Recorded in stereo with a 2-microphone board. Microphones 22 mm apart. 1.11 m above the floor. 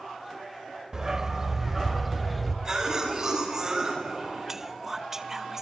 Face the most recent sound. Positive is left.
turn(degrees=-15)  # may be behind; listen again after turning